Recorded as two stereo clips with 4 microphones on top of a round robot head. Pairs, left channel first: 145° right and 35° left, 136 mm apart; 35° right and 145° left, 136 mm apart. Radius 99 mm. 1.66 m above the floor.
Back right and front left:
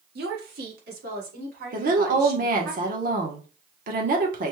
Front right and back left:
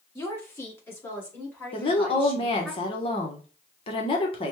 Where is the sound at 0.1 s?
35° left, 1.1 m; by 2.7 s 45° left, 3 m.